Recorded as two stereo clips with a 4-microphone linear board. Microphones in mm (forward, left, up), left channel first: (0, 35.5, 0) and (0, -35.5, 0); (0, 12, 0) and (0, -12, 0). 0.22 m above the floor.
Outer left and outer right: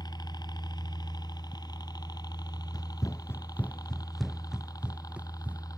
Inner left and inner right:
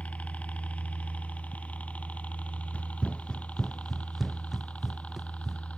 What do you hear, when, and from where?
0.0 s a helicopter: 75° left (ahead or behind); by 5.8 s 60° left (ahead or behind)
2.7 s running footsteps: 65° left (ahead or behind); by 5.6 s 20° right (ahead or behind)